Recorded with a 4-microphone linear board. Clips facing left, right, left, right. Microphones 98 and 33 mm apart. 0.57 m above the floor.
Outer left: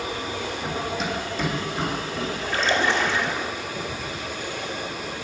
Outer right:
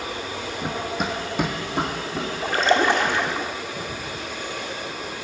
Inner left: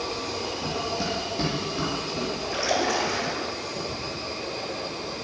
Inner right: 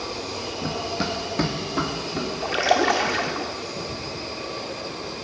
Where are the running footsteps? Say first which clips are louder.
Outer right 3 dB, inner right 3 dB; 40° right (ahead or behind), 1.1 m; by 2.3 s 75° right (ahead or behind), 2 m.